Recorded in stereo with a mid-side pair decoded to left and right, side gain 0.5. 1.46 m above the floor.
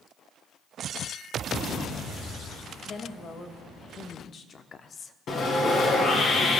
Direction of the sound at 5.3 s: 55° left.